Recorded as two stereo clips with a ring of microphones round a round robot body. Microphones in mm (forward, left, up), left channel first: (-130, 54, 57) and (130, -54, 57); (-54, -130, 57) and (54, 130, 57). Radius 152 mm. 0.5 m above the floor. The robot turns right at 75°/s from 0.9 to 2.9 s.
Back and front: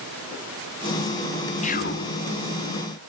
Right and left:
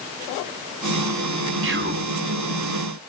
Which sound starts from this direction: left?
Whispering, at 1.6 s.